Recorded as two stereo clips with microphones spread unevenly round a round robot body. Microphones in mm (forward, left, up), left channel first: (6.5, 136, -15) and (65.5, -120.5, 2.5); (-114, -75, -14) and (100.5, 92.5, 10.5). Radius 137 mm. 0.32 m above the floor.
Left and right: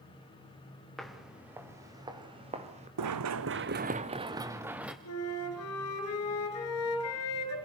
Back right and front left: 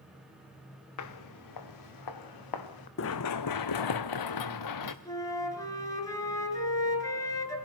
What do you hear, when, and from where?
1.0 s footsteps: 170° right, 2.5 m; by 2.9 s 145° right, 3 m
3.0 s running footsteps: 95° right, 1.1 m; by 5.0 s 165° right, 2.0 m
5.0 s a flute: 140° left, 5 m